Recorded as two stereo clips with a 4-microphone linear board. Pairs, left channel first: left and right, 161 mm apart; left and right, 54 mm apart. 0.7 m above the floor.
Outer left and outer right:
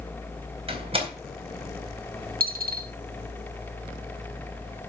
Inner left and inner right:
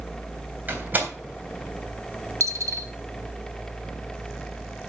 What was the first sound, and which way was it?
A door slam, 35° right (ahead or behind).